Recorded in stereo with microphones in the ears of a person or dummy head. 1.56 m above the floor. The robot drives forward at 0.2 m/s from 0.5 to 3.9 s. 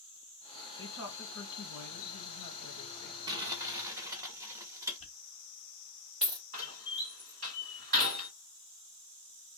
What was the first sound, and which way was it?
A woman speaking, 70° left (ahead or behind).